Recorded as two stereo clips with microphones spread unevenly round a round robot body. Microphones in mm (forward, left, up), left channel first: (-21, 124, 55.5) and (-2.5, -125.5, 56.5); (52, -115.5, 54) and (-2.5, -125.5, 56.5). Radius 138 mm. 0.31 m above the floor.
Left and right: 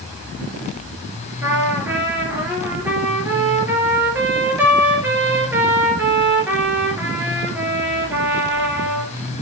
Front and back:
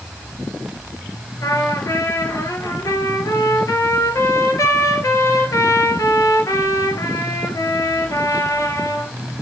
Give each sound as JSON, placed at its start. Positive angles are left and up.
{"t": 1.4, "sound": "a trumpet", "azimuth_deg": -5, "distance_m": 3.5}